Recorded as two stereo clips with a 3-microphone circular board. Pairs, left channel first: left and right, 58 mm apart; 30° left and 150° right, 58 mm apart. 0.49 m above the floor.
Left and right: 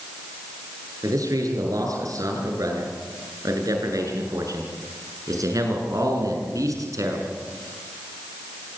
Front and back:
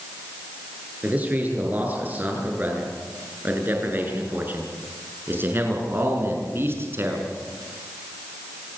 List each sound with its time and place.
1.0 s a man speaking: 85° right, 9 m; by 7.4 s 105° right, 6.5 m